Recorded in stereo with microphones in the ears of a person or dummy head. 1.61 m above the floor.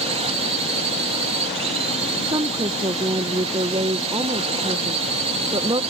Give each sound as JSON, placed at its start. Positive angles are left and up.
{"t": 0.0, "sound": "a drone", "side_deg": -35}
{"t": 2.2, "sound": "a woman speaking", "side_deg": -25}